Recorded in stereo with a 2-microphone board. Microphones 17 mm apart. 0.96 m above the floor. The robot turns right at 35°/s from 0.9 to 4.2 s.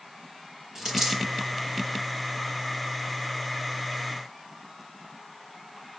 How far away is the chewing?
I don't hear chewing.